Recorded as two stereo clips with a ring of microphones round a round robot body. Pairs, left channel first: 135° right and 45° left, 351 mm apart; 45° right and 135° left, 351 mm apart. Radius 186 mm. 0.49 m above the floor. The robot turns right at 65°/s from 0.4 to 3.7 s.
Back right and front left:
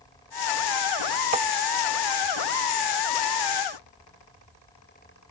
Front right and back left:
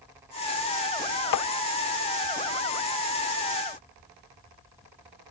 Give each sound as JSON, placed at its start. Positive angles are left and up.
{"t": 1.3, "sound": "tapping", "azimuth_deg": -25, "distance_m": 0.7}